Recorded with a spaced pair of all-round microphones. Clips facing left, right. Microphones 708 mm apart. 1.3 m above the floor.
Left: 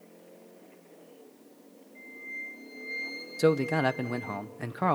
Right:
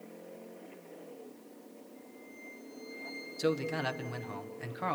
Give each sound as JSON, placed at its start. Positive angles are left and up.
{"t": 1.9, "sound": "a flute", "side_deg": 85, "distance_m": 4.0}
{"t": 3.4, "sound": "a man speaking", "side_deg": 75, "distance_m": 0.9}